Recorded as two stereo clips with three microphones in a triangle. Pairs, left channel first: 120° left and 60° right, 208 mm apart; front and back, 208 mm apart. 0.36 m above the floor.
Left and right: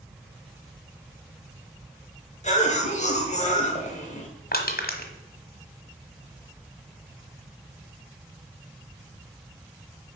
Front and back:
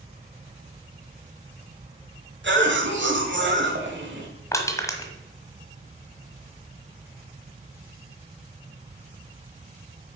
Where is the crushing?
75° left, 1.4 m.